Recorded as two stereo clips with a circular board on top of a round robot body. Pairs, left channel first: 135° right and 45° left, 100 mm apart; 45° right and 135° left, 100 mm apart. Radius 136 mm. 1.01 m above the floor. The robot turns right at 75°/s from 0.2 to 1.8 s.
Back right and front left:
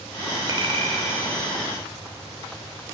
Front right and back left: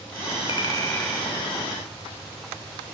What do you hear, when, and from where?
0.5 s a clink: 5° right, 3 m; by 1.3 s 55° left, 3 m